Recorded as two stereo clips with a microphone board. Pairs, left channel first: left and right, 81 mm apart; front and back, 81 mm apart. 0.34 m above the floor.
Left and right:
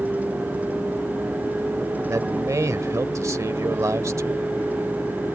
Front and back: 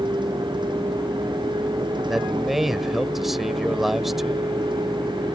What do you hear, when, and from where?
0.0 s a vehicle: 160° right
2.1 s a man speaking: 95° right